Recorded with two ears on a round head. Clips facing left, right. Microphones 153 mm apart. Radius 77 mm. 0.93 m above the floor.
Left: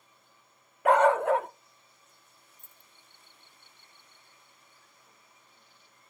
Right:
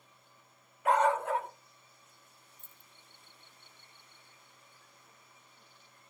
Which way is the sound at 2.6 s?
20° right (ahead or behind).